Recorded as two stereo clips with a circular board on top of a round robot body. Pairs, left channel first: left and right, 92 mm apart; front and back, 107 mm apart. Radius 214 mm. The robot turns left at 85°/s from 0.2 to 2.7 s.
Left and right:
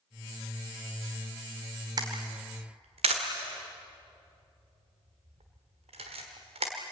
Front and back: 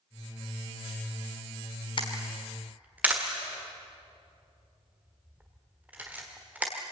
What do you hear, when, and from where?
2.0 s a camera shutter: 40° right, 1.2 m; by 6.7 s 105° right, 1.2 m